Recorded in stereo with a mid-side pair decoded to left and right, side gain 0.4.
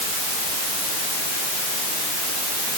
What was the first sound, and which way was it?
Only background noise.